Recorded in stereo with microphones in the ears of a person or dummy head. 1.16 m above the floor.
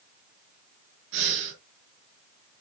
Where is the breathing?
70° right (ahead or behind), 4.5 m.